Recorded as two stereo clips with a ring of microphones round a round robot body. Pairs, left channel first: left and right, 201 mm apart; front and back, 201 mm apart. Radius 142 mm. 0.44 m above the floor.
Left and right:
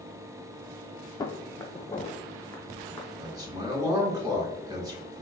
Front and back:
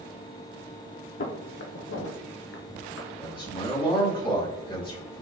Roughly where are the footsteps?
Ahead.